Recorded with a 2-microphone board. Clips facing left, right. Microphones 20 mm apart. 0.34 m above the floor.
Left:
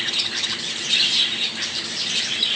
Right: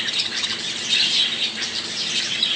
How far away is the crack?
I don't hear a crack.